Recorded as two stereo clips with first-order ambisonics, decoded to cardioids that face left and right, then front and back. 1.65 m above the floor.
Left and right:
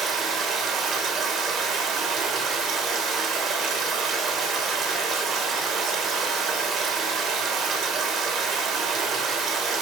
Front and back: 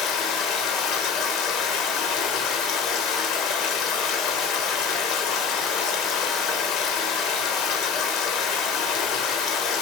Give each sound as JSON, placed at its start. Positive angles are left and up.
{"t": 0.0, "sound": "running water", "azimuth_deg": -35, "distance_m": 3.5}